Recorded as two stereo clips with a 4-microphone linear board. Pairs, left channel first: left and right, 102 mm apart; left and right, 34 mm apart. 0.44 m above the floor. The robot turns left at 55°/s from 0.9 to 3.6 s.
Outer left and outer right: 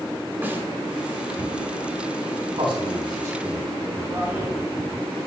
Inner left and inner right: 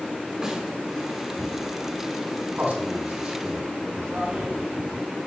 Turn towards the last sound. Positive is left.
turn(degrees=-25)  # may be behind; listen again after turning